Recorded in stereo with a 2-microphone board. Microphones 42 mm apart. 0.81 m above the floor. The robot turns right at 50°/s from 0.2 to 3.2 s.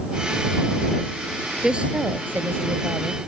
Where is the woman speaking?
165° right; by 3.2 s 85° right.